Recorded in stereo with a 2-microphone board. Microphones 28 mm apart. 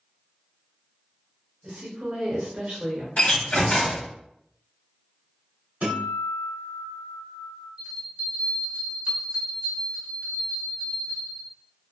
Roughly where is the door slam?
Left.